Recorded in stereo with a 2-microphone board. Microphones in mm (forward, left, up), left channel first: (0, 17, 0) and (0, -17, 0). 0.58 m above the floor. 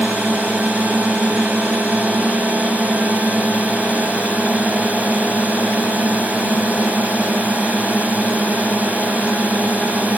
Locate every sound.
0.0 s a drone: 45° right (ahead or behind)